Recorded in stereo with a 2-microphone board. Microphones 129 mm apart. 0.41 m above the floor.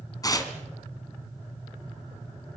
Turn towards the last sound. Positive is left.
turn(degrees=30)  # may be behind; listen again after turning